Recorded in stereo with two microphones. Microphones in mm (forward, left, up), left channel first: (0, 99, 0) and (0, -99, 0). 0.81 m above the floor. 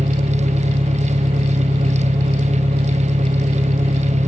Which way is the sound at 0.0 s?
25° right (ahead or behind).